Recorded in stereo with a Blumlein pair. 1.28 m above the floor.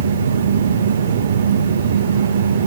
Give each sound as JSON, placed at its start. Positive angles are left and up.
{"t": 0.0, "sound": "a fan", "azimuth_deg": -65, "distance_m": 1.4}